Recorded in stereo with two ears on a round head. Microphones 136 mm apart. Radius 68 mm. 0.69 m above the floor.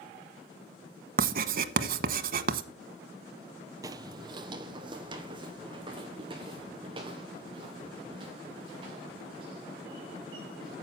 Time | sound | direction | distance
1.2 | writing | 60° right (ahead or behind) | 1.0 m
3.8 | footsteps | 20° right (ahead or behind) | 0.8 m